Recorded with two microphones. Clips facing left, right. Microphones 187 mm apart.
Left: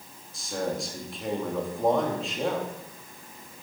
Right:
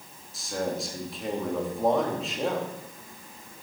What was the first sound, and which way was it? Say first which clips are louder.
A man speaking: even; centre (ahead or behind).